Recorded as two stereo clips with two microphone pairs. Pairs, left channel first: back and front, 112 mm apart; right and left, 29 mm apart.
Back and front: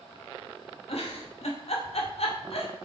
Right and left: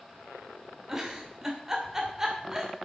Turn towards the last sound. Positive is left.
turn(degrees=160)